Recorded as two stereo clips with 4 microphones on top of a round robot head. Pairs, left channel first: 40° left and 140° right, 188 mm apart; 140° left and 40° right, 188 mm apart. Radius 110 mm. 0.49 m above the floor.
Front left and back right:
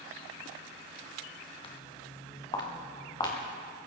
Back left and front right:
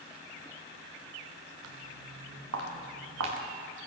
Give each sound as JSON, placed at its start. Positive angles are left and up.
{"t": 1.6, "sound": "footsteps", "azimuth_deg": -25, "distance_m": 3.0}